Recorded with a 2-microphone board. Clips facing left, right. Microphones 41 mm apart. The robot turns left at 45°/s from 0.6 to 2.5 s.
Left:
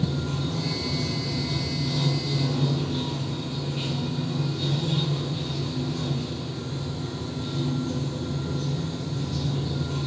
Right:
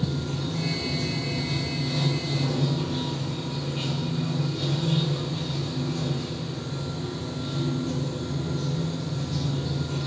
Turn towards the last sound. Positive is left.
turn(degrees=-55)